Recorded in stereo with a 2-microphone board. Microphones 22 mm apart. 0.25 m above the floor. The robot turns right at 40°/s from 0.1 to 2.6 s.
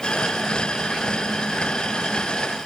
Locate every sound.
Only background noise.